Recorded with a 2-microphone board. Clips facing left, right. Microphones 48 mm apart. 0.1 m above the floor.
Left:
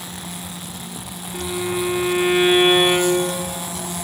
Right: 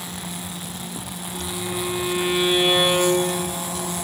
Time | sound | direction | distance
1.3 | a violin | 35° left (ahead or behind) | 1.2 m